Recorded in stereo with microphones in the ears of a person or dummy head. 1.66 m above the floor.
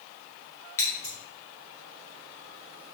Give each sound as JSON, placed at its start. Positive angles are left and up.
{"t": 0.8, "sound": "scissors", "side_deg": 15, "distance_m": 0.5}